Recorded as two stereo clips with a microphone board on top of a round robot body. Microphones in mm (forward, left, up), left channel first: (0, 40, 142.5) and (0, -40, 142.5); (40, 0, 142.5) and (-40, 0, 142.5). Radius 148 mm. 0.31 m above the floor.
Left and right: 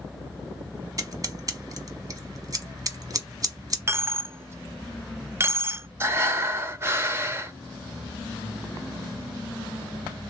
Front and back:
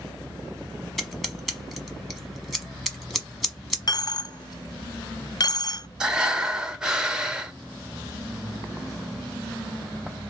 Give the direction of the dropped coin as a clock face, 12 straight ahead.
1 o'clock.